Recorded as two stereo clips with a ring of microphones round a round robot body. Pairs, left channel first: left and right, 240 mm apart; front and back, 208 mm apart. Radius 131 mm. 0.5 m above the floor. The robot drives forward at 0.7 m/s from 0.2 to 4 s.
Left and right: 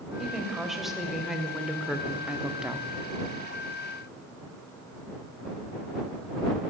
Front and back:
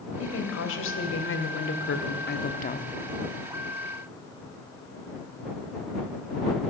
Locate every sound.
0.2 s a woman speaking: straight ahead, 2.5 m; by 2.9 s 5° right, 0.7 m